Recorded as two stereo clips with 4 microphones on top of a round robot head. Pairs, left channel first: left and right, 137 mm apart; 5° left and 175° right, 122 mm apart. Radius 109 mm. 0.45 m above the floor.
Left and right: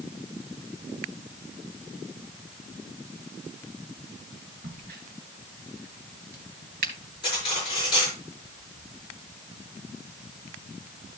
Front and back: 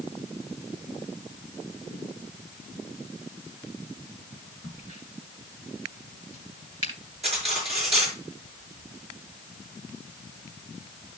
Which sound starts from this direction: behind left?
Cutlery clinking, at 7.2 s.